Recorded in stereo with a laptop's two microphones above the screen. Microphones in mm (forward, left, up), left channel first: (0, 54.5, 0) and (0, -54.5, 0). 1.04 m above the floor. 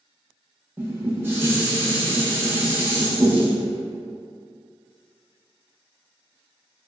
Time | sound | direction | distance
0.8 | dishes clattering | 20° right (ahead or behind) | 0.6 m